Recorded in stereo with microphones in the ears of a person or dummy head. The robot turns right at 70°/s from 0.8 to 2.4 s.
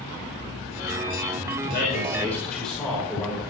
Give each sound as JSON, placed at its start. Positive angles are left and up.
{"t": 1.6, "sound": "a man speaking", "azimuth_deg": 125, "distance_m": 5.0}